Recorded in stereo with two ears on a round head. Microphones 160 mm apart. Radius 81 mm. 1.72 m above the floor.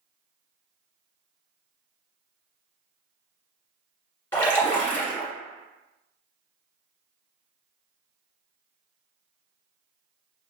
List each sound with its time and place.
4.3 s a splash: 15° left (ahead or behind), 1.5 m